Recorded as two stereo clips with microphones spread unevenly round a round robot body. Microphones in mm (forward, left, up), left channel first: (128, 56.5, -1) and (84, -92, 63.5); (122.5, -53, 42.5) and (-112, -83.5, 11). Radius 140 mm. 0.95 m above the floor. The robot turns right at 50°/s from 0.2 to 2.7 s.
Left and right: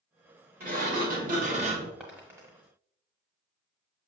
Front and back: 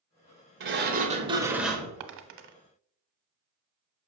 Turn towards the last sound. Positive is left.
turn(degrees=-140)